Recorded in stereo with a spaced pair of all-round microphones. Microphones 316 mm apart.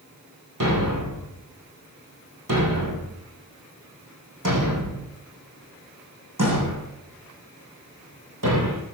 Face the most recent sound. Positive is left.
turn(degrees=-75)  # may be behind; listen again after turning